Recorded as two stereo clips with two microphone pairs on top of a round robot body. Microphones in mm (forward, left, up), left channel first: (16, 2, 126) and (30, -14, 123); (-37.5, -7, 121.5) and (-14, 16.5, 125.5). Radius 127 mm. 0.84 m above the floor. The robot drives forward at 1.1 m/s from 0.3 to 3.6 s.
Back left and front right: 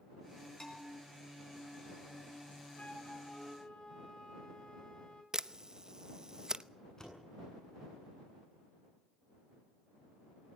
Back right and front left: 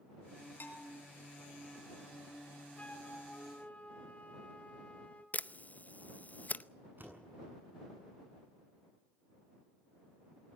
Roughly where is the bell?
Behind.